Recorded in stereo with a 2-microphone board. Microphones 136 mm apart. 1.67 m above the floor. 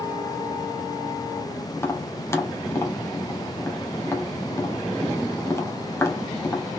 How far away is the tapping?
About 1.1 m.